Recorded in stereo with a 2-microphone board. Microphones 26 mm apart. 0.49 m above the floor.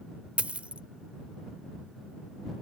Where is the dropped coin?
60° right (ahead or behind).